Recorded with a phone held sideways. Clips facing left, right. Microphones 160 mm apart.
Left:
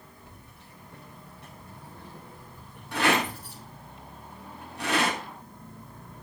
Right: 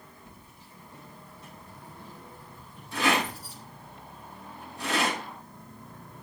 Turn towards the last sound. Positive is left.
turn(degrees=80)